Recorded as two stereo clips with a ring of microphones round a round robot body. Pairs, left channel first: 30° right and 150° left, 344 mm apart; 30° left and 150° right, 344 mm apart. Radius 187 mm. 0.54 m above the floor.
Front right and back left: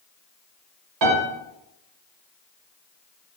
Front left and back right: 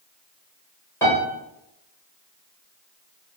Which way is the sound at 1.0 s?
115° left.